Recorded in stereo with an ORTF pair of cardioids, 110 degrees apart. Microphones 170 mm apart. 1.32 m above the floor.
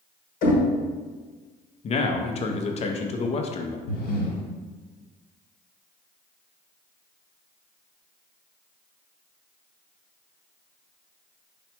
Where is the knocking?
55° left, 1.2 m.